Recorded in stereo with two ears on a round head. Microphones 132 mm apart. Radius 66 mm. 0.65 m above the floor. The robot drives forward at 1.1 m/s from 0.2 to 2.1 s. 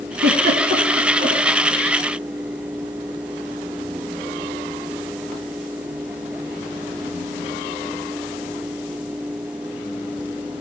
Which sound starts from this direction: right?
A giggle, at 0.2 s.